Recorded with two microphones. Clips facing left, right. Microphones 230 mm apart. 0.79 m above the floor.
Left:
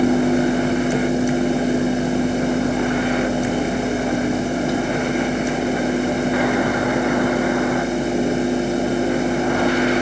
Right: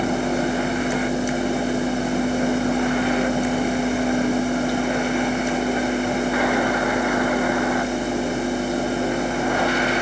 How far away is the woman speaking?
I don't hear a woman speaking.